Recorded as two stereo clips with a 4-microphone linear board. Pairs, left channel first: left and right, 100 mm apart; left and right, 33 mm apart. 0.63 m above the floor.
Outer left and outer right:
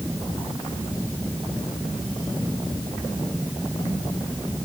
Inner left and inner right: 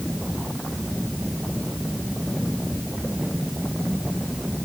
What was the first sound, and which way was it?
Only background noise.